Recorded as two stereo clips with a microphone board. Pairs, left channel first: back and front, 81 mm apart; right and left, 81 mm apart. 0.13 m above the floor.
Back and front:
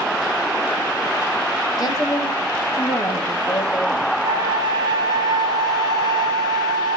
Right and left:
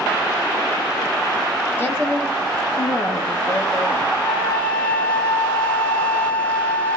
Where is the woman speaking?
150° right, 2.5 m; by 4.1 s 135° right, 4.5 m.